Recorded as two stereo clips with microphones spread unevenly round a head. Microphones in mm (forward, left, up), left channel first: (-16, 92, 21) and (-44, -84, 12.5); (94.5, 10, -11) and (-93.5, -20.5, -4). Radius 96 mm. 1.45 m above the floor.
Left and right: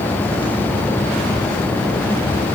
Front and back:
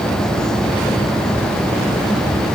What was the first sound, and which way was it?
Only background noise.